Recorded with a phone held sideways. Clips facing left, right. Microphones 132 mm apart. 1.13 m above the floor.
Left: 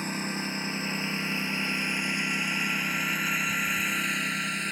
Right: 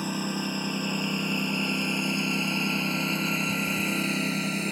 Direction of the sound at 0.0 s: 10° right (ahead or behind).